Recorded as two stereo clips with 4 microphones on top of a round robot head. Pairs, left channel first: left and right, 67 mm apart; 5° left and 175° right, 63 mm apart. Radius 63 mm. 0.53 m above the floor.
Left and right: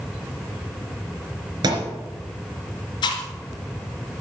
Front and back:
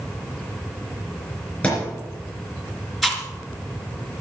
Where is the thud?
75° right, 3 m.